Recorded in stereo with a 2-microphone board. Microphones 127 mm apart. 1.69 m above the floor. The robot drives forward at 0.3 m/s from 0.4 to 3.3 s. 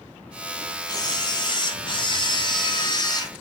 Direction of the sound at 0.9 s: 30° left (ahead or behind).